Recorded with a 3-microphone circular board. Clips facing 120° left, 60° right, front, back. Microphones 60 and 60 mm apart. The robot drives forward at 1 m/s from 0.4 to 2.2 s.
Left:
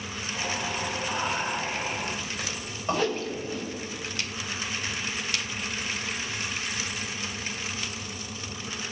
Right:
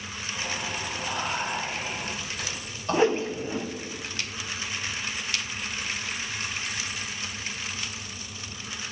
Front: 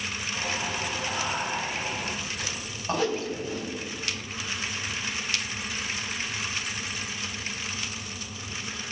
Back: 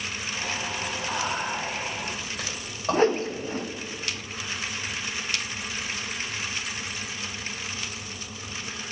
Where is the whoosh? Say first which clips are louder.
Right 7 dB, back 5 dB; 125° right, 0.5 m.